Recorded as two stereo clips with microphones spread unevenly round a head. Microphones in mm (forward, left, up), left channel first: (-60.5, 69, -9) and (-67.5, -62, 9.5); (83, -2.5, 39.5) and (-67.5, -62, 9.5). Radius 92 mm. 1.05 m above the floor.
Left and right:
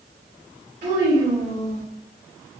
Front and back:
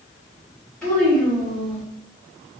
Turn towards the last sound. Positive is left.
turn(degrees=-65)